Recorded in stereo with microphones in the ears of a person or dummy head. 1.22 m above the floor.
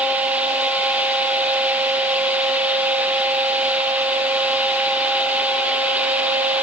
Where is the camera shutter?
No camera shutter in this recording.